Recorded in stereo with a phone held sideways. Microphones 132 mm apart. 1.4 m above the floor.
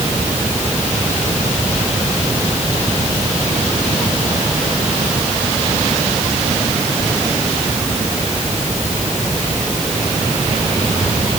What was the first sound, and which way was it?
Only background noise.